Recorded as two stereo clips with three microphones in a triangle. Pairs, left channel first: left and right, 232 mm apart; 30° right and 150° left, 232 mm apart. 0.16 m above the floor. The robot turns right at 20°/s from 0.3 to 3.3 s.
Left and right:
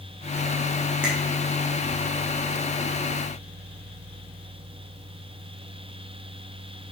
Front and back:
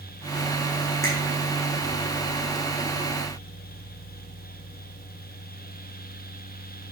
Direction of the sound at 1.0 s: 5° right.